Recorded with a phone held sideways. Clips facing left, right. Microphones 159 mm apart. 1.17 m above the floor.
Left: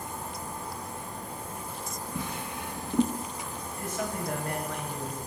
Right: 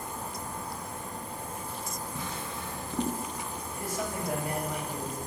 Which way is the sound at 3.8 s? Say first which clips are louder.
Left 1 dB; 10° right (ahead or behind).